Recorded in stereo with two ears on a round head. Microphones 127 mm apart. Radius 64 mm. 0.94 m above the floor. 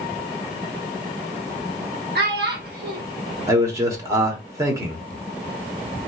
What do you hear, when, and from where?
2.1 s a child speaking: 80° right, 1.5 m
3.5 s a man speaking: 25° right (ahead or behind), 1.0 m